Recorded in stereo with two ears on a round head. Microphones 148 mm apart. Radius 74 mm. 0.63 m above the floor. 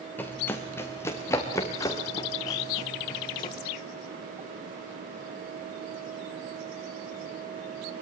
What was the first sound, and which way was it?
Running footsteps, 10° left (ahead or behind).